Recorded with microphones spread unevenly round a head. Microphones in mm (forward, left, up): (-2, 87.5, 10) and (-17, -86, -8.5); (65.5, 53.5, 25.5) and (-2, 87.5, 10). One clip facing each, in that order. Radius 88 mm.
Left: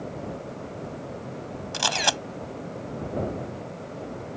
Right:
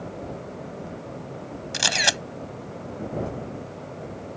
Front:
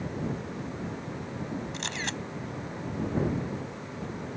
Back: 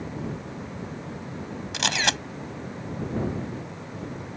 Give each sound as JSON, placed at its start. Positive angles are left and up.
{"t": 1.7, "sound": "a camera shutter", "azimuth_deg": -160}